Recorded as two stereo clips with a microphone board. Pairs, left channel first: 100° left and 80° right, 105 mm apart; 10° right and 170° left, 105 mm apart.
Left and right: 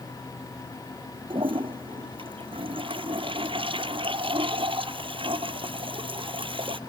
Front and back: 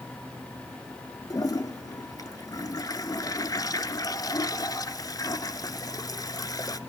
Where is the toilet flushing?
60° right, 1.1 m.